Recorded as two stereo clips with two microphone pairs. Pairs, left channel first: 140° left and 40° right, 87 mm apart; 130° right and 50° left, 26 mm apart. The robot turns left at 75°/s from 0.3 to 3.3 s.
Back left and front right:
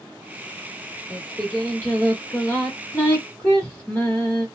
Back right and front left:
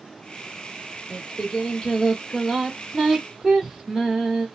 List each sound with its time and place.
1.1 s singing: 110° right, 1.5 m; by 4.5 s 85° left, 1.5 m